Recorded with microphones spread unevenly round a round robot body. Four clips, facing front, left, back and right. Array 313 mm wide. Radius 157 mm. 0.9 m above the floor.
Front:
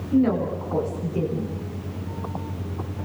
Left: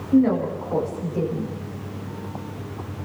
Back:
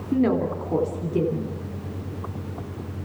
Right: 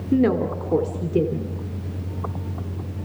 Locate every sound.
0.1 s a woman speaking: 110° right, 3.5 m